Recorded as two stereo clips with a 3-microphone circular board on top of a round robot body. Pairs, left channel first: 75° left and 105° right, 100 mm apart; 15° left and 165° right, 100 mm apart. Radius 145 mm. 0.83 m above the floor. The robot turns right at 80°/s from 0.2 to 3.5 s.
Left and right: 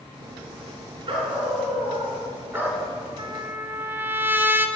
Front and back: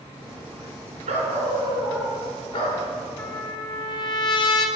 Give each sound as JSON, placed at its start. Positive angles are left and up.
{"t": 1.1, "sound": "a dog barking", "azimuth_deg": -155, "distance_m": 3.5}
{"t": 3.2, "sound": "a trumpet", "azimuth_deg": -60, "distance_m": 1.4}